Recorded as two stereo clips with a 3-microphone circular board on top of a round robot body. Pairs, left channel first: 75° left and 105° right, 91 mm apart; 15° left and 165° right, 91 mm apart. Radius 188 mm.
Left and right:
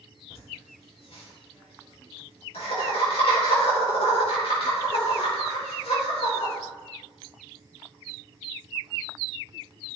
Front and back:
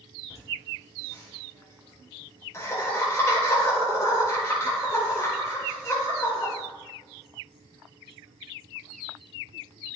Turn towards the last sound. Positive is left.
turn(degrees=75)